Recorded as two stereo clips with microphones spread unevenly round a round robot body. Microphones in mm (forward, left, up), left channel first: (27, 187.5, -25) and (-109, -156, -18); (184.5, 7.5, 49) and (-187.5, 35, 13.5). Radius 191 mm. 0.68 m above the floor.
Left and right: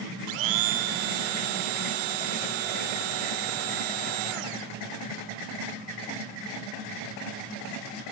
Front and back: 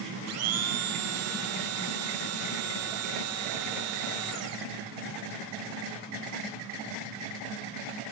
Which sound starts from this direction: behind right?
A blender, at 0.3 s.